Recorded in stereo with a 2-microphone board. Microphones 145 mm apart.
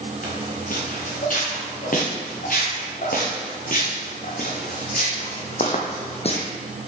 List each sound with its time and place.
0.2 s footsteps: 65° left (ahead or behind), 3.5 m; by 6.5 s 40° left (ahead or behind), 1.4 m